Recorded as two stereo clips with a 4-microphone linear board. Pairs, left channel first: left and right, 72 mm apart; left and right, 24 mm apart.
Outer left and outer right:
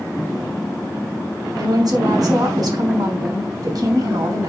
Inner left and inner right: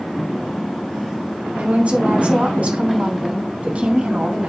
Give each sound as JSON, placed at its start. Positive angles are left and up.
{"t": 1.6, "sound": "a woman speaking", "side_deg": -65, "distance_m": 4.5}